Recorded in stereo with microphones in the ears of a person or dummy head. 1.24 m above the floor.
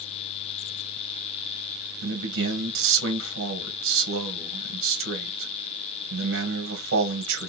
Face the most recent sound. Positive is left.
turn(degrees=-60)  # may be behind; listen again after turning